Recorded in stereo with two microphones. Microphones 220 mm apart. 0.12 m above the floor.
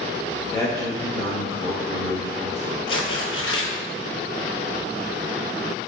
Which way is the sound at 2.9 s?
75° left (ahead or behind).